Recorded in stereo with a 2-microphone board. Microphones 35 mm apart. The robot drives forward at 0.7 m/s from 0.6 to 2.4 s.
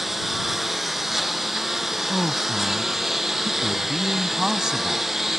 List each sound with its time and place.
0.0 s a lawn mower: 10° right (ahead or behind); by 5.4 s 15° right (ahead or behind)
2.1 s a man speaking: 20° right (ahead or behind)